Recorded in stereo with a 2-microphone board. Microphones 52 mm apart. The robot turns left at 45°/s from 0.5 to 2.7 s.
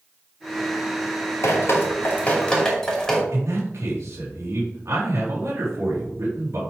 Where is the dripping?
55° left (ahead or behind), 2 m; by 3.2 s 5° left (ahead or behind), 2 m.